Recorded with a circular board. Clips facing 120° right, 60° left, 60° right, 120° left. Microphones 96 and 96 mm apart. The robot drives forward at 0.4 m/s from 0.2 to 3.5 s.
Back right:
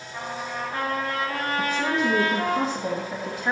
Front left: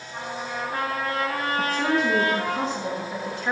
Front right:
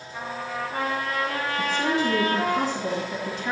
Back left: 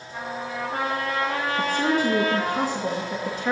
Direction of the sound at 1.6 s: 145° left.